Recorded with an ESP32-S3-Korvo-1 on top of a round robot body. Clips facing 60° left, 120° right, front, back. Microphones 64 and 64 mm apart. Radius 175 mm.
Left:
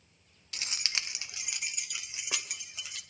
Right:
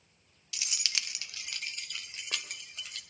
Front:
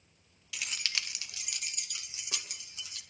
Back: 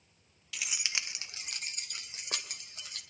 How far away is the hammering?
I don't hear hammering.